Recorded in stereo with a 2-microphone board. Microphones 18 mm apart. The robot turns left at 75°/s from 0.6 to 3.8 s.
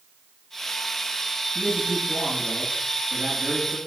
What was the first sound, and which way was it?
A man speaking, 40° left.